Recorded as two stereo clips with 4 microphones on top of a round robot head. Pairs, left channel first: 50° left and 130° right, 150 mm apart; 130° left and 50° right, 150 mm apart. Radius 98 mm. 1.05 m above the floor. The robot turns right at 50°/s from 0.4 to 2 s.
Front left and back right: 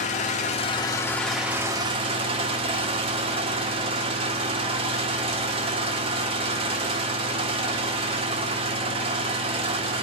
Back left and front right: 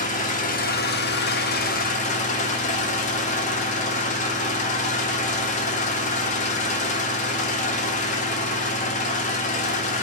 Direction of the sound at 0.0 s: 95° left.